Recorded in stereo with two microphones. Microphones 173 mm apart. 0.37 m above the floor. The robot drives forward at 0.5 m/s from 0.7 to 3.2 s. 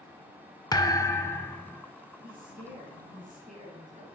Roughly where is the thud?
Left.